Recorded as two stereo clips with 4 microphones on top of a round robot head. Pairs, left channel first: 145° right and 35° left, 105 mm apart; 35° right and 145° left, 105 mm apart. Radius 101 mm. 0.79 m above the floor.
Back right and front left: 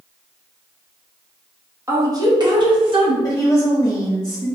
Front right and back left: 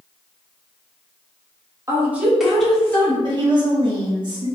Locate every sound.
1.9 s a woman speaking: 90° left, 1.3 m; by 3.1 s 30° left, 1.8 m
3.2 s a woman speaking: 165° left, 1.2 m